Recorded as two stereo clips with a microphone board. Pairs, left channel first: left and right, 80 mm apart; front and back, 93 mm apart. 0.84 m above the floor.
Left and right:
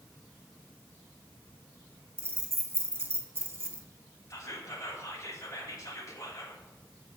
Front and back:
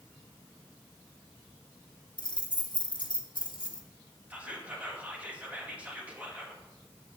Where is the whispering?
110° left, 1.5 m.